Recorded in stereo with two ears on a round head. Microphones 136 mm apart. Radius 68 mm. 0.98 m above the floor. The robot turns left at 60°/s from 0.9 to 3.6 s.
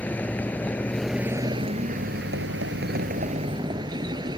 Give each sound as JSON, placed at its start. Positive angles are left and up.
{"t": 0.0, "sound": "a vehicle", "azimuth_deg": 10}